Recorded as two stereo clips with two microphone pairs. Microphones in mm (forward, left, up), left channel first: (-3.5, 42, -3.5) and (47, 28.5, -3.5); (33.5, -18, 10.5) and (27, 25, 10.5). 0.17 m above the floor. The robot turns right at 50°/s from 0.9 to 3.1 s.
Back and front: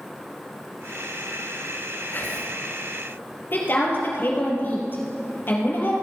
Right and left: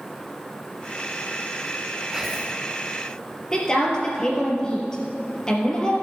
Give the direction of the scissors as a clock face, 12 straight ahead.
No scissors in this recording.